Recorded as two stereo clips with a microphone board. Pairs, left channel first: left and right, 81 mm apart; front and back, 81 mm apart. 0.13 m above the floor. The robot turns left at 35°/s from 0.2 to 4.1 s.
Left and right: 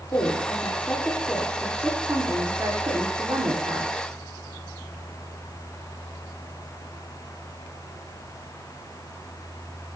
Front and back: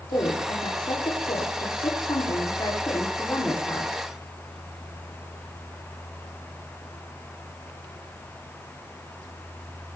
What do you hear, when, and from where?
0.1 s a woman speaking: 40° left, 8.5 m; by 4.1 s 95° right, 8.5 m